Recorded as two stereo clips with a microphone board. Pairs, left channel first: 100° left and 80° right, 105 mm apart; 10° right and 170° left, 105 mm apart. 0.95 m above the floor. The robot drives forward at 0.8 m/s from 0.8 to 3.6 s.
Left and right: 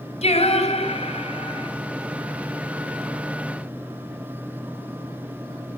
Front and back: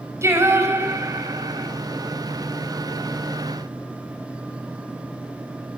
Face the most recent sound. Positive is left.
turn(degrees=130)